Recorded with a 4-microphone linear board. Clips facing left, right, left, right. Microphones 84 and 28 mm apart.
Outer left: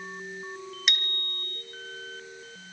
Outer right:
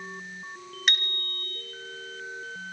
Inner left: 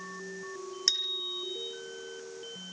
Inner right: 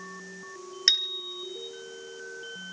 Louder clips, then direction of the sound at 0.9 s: Outer right 4 dB, inner right 5 dB; 45° right (ahead or behind).